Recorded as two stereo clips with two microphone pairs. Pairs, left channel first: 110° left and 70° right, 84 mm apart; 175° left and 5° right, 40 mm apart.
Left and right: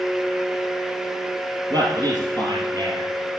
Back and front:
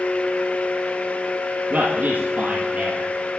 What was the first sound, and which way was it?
A man speaking, 45° right.